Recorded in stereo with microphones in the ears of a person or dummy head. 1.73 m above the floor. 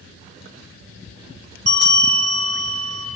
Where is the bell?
55° right (ahead or behind), 2.5 m.